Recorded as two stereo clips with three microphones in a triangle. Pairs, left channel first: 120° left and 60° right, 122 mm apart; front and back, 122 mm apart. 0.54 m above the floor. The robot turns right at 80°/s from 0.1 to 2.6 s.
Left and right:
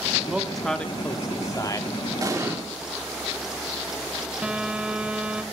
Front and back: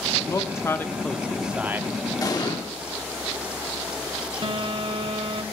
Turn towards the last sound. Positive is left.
turn(degrees=-145)